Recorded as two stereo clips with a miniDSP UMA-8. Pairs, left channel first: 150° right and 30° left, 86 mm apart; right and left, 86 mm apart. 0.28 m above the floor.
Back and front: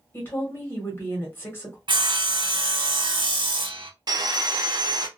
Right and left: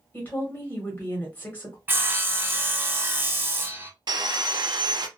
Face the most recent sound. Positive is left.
turn(degrees=65)